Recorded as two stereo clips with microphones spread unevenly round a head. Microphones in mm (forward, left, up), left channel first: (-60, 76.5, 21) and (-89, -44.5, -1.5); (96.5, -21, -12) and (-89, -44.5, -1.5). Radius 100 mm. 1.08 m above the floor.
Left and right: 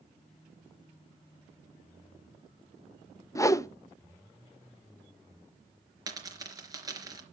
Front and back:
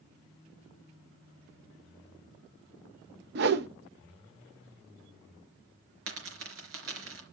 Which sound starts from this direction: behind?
A dropped coin, at 6.1 s.